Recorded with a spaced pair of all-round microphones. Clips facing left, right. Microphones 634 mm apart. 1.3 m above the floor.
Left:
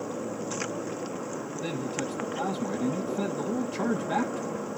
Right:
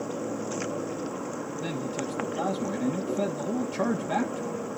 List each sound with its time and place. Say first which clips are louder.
1.6 s a man speaking: even; 5° right (ahead or behind), 1.8 m